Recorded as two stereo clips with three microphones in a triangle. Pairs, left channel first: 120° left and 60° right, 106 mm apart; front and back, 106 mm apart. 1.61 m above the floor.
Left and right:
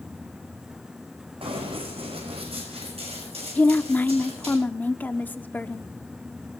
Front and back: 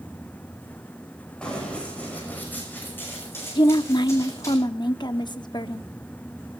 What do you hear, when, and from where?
1.4 s running footsteps: 80° right, 6 m; by 4.5 s 60° right, 7.5 m
3.5 s a woman speaking: 50° left, 0.8 m